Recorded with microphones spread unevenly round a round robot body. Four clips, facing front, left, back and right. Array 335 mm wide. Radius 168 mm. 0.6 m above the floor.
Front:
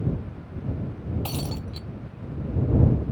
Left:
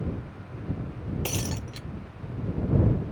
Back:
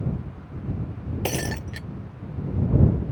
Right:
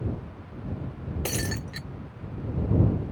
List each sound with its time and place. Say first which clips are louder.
1.2 s breaking glass: right 1 dB, back 4 dB; 170° right